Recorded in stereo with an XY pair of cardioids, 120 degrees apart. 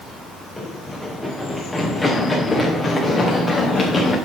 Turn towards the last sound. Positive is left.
turn(degrees=30)